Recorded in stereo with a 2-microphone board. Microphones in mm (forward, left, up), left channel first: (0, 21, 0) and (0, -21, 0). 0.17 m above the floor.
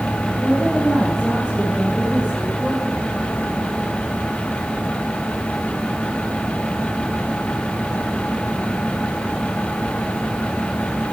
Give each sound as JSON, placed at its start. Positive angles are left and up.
{"t": 0.4, "sound": "a woman speaking", "side_deg": 15, "distance_m": 6.0}